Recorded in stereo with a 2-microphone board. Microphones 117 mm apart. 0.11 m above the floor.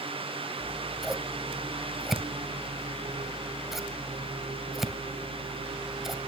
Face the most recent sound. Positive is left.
turn(degrees=0)  # may be behind; listen again after turning